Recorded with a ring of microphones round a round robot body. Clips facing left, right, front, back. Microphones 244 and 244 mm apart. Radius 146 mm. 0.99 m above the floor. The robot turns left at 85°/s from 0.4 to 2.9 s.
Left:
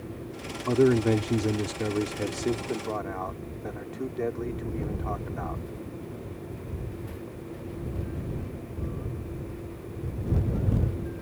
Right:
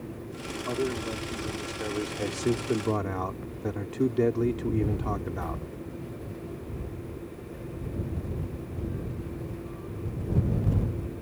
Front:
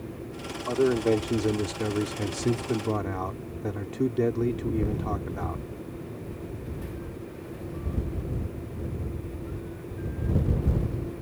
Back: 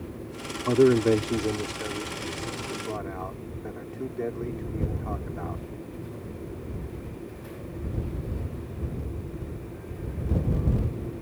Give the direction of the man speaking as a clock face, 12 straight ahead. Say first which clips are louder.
Left 10 dB, back 4 dB; 7 o'clock.